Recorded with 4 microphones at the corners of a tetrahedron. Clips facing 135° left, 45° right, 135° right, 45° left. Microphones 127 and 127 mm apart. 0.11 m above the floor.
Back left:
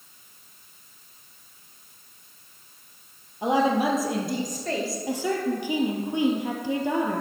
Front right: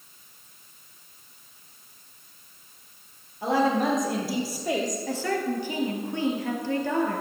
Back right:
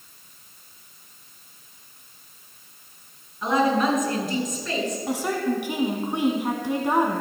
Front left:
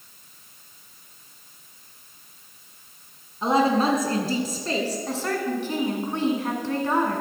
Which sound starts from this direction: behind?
A woman speaking, at 5.1 s.